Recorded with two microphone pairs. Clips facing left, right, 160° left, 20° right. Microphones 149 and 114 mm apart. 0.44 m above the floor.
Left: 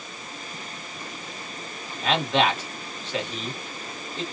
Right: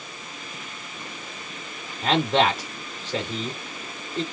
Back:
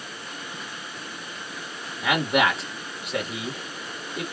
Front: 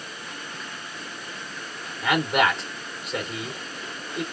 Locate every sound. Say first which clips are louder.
2.0 s a man speaking: right 2 dB, even; 110° right, 1.6 m